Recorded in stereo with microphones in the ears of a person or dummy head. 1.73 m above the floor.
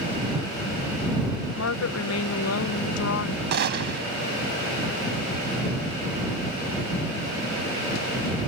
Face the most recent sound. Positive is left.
turn(degrees=-55)  # may be behind; listen again after turning